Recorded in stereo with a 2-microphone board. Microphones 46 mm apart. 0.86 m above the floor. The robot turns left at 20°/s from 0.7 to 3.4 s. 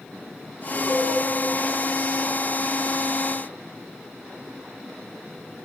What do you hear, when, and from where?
0.9 s a cowbell: 70° right (ahead or behind), 7 m; by 1.1 s 65° right (ahead or behind), 7 m